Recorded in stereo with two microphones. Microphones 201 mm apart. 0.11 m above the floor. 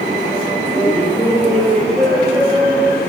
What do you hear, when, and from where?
0.7 s laughter: 10° right (ahead or behind), 2 m; by 3.0 s 30° right (ahead or behind), 3 m